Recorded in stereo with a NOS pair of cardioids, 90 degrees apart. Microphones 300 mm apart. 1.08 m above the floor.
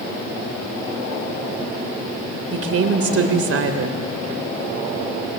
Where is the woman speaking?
50° right, 3.5 m.